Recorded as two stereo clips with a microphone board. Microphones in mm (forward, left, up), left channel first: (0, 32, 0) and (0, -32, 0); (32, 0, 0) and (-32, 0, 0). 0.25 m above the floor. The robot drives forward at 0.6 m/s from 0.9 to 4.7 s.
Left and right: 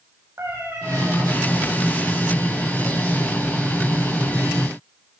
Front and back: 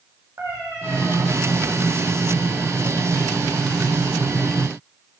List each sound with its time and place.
0.4 s a cat meowing: 135° right, 4 m